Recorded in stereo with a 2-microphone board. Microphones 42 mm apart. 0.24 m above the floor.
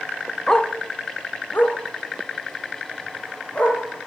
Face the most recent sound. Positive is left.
turn(degrees=35)  # may be behind; listen again after turning